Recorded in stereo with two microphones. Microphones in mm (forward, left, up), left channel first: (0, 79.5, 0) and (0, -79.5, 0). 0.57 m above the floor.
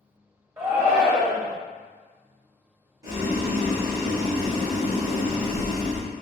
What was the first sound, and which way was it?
A shout, 15° right (ahead or behind).